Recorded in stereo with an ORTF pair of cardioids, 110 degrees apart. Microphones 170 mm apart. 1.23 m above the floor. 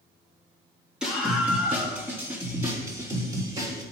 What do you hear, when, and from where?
1.0 s a scream: 5° right, 2 m; by 3.8 s 25° right, 3.5 m